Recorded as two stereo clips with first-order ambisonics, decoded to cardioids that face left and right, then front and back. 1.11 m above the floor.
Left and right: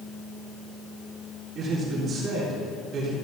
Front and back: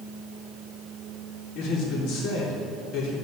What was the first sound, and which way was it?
A man speaking, 30° right.